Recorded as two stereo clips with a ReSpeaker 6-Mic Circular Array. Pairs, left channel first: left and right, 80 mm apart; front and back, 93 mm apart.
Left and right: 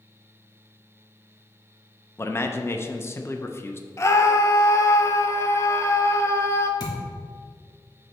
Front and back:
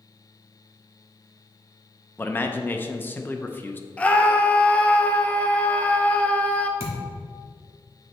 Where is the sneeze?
I don't hear a sneeze.